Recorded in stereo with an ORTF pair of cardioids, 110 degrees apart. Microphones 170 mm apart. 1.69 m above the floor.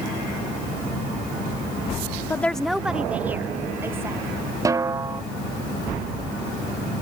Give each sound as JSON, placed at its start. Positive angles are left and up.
{"t": 2.3, "sound": "a woman speaking", "azimuth_deg": 15}
{"t": 4.7, "sound": "a snare drum", "azimuth_deg": -20}